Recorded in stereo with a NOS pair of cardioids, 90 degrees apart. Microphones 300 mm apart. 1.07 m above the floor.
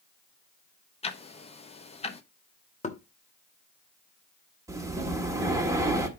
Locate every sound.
1.0 s ticking: 20° left, 0.9 m
2.8 s knocking: 25° left, 1.1 m
4.7 s breathing: 10° right, 1.5 m